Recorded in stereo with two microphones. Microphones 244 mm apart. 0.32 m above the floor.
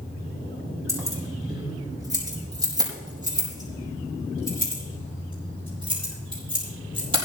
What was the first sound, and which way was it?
Keys jangling, 15° right (ahead or behind).